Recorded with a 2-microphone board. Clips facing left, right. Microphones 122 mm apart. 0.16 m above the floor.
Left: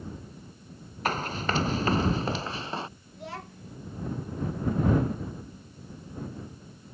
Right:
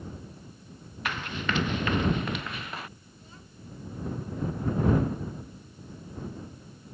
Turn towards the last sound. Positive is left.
turn(degrees=75)  # may be behind; listen again after turning